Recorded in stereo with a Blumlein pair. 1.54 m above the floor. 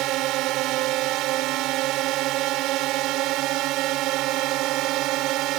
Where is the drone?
40° right.